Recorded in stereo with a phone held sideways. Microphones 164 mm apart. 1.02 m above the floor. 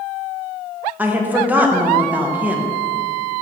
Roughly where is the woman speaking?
Centre.